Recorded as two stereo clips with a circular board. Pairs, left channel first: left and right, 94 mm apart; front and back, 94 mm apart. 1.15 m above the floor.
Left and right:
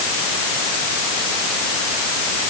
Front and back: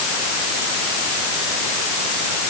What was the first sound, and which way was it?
Only background noise.